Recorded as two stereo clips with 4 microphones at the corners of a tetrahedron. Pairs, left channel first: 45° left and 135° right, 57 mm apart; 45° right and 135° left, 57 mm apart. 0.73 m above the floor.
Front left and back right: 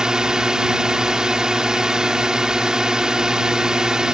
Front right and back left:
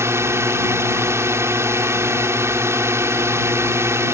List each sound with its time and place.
0.0 s a drone: 150° left